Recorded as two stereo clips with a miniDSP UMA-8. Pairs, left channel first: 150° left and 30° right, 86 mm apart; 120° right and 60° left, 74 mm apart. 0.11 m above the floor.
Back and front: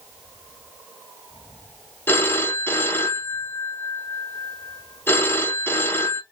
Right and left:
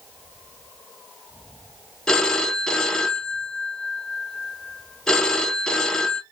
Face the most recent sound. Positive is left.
turn(degrees=165)